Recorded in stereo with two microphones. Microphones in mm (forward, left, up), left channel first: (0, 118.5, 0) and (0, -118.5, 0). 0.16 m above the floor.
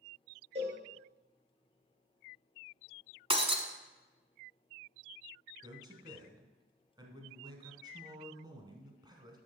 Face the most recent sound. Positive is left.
turn(degrees=-20)  # may be behind; listen again after turning